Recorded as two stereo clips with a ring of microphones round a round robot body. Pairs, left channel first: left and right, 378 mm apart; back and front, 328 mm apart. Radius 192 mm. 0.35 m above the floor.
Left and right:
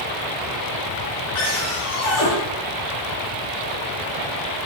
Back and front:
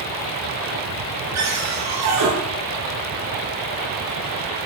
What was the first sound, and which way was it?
A cupboard door, 40° left.